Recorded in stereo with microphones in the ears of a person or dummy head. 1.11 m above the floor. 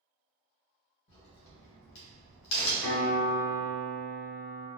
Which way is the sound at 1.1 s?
55° left (ahead or behind).